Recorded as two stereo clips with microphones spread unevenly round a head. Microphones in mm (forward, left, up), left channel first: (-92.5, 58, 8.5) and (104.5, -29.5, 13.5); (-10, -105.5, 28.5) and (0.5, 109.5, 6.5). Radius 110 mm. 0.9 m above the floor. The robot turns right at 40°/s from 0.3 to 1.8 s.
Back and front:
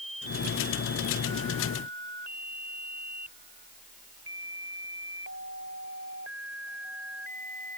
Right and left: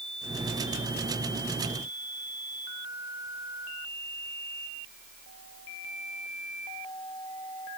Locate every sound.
Only background noise.